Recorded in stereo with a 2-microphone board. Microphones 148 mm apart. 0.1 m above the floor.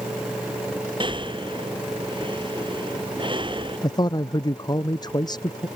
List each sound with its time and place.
1.0 s breathing: 35° right (ahead or behind)
3.8 s a man speaking: 30° left (ahead or behind)